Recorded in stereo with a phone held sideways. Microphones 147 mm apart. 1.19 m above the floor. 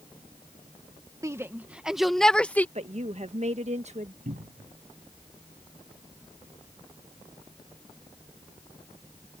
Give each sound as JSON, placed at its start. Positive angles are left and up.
{"t": 1.2, "sound": "a shout", "side_deg": -20}
{"t": 2.8, "sound": "a woman speaking", "side_deg": -50}
{"t": 4.2, "sound": "a cupboard door", "side_deg": -75}